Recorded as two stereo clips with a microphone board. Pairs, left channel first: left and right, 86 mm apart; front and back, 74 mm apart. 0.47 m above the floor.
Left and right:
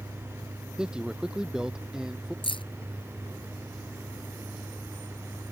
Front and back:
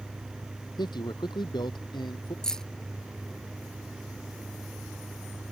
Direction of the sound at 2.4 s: 80° left.